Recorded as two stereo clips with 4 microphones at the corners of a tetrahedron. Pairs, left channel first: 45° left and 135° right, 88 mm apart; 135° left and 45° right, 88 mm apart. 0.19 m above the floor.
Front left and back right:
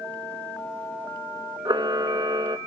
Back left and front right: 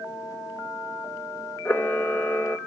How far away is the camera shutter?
About 0.6 m.